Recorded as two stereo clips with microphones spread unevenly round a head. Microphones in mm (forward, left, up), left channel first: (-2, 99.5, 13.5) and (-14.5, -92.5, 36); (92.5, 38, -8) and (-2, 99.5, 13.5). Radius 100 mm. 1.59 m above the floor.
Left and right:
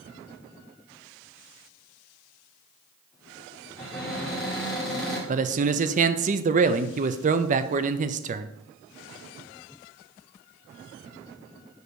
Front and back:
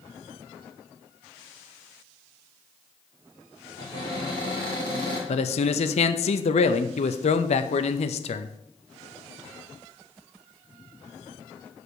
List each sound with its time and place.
3.8 s a cupboard door: 175° left, 2.5 m
5.3 s a man speaking: 40° right, 0.6 m